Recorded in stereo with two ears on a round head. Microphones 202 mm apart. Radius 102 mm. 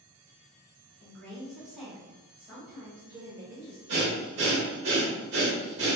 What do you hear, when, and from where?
1.0 s a woman speaking: 10° left (ahead or behind), 1.4 m; by 3.8 s 40° right (ahead or behind), 1.7 m
3.9 s breathing: 55° right (ahead or behind), 1.1 m